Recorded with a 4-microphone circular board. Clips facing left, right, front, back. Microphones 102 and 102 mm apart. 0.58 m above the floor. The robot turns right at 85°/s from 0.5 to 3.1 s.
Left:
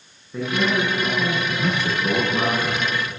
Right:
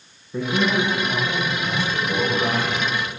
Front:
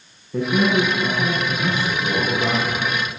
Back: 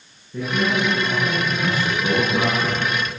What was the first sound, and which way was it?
A man speaking, 10° right.